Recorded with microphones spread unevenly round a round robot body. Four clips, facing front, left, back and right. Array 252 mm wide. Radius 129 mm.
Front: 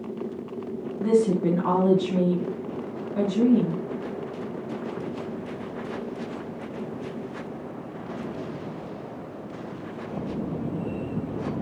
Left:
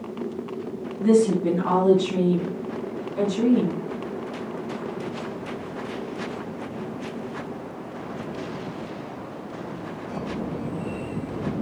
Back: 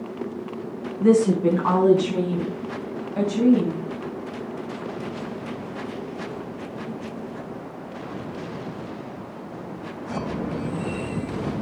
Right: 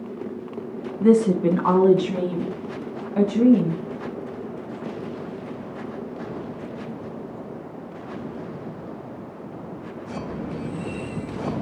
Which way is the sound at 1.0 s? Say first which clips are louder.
Right 2 dB, back 4 dB; 145° right.